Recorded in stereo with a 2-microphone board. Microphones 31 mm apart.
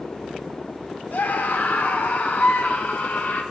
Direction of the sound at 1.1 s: 75° left (ahead or behind).